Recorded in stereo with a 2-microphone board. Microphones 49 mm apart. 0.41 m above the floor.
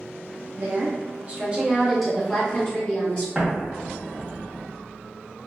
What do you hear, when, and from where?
0.6 s a woman speaking: 55° right (ahead or behind), 1.2 m; by 3.2 s 35° left (ahead or behind), 1.3 m
3.4 s an explosion: 15° right (ahead or behind), 1.0 m